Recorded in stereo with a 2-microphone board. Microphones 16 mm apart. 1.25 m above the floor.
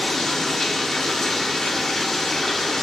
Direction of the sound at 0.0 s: 30° left (ahead or behind).